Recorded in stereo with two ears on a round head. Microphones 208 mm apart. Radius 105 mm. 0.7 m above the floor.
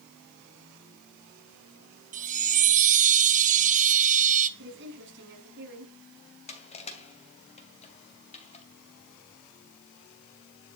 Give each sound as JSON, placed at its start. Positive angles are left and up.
{"t": 2.1, "sound": "a chime", "side_deg": -35, "distance_m": 1.2}
{"t": 4.6, "sound": "a woman speaking", "side_deg": -55, "distance_m": 5.5}
{"t": 6.5, "sound": "crushing", "side_deg": 25, "distance_m": 2.5}